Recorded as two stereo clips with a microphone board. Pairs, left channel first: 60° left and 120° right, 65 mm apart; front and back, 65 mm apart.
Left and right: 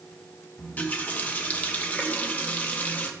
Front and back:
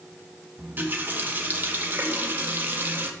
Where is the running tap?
125° left, 1.6 m.